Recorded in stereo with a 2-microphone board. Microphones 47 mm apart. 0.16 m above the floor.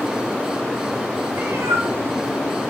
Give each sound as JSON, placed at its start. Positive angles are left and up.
{"t": 1.3, "sound": "a cat meowing", "side_deg": -80, "distance_m": 0.8}